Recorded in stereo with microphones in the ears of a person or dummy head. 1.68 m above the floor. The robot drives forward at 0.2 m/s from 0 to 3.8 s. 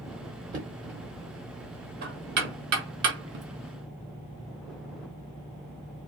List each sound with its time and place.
0.5 s knocking: 45° right (ahead or behind), 1.6 m; by 3.5 s 60° right (ahead or behind), 1.3 m